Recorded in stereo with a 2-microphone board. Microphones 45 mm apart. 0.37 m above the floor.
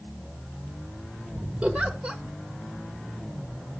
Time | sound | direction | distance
1.6 | a giggle | 25° right (ahead or behind) | 1.2 m